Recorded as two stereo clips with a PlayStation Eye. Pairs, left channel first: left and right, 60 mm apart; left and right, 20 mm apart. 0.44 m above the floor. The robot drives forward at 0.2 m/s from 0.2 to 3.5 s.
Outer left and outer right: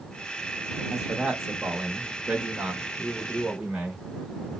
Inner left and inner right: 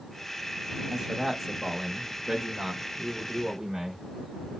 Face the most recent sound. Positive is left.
turn(degrees=-10)  # may be behind; listen again after turning